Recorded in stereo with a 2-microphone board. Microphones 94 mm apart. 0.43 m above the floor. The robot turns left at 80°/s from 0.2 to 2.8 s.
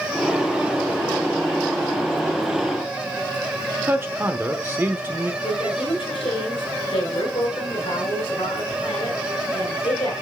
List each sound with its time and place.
3.9 s a man speaking: 25° right (ahead or behind), 0.9 m
5.4 s a woman speaking: 70° left (ahead or behind), 4 m